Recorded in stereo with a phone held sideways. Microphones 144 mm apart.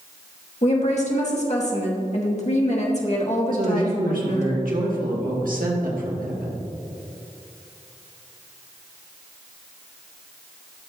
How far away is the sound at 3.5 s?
About 1.7 m.